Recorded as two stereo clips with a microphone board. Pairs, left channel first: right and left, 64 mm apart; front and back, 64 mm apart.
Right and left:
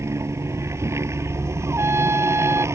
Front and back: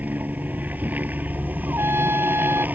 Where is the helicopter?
120° left.